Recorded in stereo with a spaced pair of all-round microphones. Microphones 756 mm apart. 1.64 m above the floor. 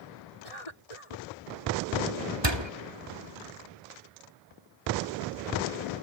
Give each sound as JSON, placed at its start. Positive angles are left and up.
{"t": 0.4, "sound": "a cough", "side_deg": 45}
{"t": 2.4, "sound": "a door slam", "side_deg": -35}